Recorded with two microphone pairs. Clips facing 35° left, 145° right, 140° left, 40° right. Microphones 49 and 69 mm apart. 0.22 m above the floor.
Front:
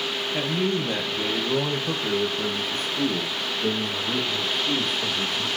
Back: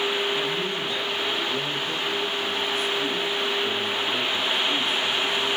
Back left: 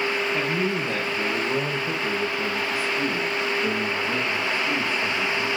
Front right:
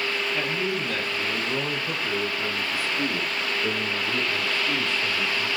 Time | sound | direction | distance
0.3 | a man speaking | 80° left | 4.5 m